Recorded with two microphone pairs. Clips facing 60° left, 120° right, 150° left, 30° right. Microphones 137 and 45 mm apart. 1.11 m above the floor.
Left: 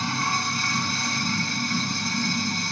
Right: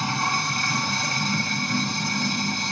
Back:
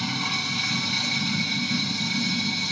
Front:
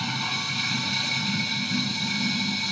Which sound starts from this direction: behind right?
Running water, at 0.0 s.